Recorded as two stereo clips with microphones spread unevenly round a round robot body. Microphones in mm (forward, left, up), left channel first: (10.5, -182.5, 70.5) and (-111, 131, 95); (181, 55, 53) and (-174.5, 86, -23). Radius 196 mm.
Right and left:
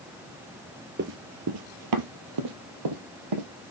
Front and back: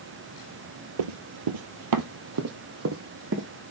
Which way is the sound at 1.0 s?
165° left.